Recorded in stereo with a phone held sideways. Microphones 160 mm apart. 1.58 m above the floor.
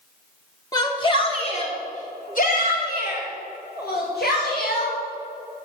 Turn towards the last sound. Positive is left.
turn(degrees=85)